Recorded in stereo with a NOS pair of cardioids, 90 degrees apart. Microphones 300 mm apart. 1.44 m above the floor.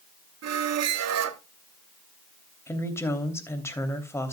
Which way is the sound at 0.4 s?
60° right.